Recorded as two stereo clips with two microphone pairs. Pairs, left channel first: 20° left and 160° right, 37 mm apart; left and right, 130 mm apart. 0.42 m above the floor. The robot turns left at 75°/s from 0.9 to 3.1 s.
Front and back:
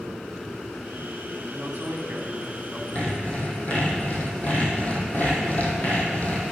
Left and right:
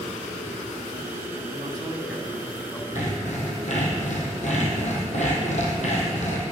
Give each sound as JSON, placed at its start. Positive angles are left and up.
{"t": 1.5, "sound": "a man speaking", "azimuth_deg": -130, "distance_m": 2.5}
{"t": 3.0, "sound": "sawing", "azimuth_deg": 75, "distance_m": 2.5}